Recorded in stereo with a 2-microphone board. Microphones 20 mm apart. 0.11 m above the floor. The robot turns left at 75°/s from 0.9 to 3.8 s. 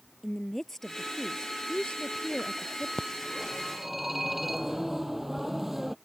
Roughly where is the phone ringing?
Ahead left.